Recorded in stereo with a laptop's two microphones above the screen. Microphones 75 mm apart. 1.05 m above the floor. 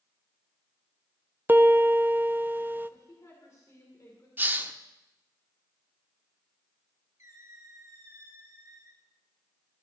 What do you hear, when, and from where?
1.5 s a piano: 25° right (ahead or behind), 0.5 m
2.9 s a woman speaking: 50° left (ahead or behind), 3 m
4.4 s a hiss: 25° right (ahead or behind), 0.6 m
7.2 s a squeak: 40° right (ahead or behind), 1.2 m